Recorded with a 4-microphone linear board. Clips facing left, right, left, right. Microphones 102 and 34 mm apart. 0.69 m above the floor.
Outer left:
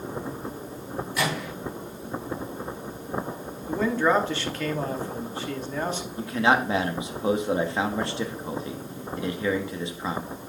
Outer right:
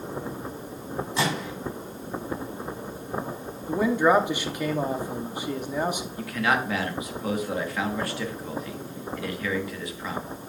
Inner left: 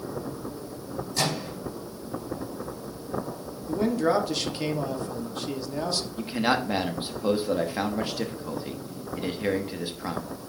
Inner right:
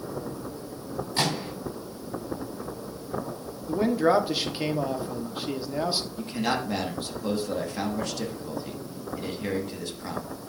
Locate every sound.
1.2 s a microwave: 25° right (ahead or behind), 3.5 m
3.7 s a man speaking: 15° right (ahead or behind), 0.9 m
6.2 s a man speaking: 25° left (ahead or behind), 1.0 m